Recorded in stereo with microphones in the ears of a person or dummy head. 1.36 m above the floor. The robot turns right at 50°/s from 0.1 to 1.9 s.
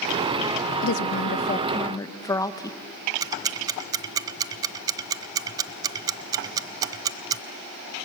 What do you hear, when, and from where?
0.8 s a woman speaking: 105° left, 1.2 m; by 2.8 s 160° left, 1.2 m
3.2 s ticking: 20° right (ahead or behind), 0.8 m